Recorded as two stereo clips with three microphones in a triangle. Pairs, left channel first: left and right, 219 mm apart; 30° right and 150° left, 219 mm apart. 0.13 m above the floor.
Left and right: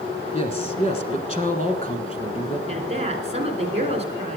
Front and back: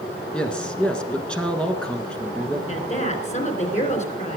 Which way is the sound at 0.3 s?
55° left.